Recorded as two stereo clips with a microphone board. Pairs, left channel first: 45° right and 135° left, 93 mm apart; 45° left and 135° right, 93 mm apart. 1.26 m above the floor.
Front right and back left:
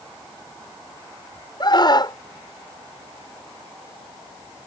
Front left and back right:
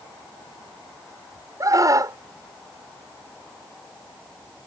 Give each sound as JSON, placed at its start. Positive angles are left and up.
{"t": 1.6, "sound": "a scream", "azimuth_deg": -85}